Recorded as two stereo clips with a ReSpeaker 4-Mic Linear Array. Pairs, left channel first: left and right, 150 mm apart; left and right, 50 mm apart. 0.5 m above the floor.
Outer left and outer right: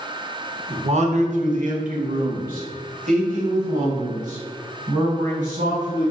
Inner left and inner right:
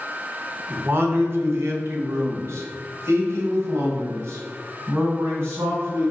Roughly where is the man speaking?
Right.